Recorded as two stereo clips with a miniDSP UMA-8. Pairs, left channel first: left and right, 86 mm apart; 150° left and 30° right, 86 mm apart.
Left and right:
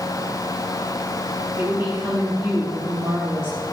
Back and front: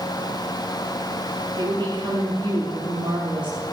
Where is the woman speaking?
35° right, 3 m.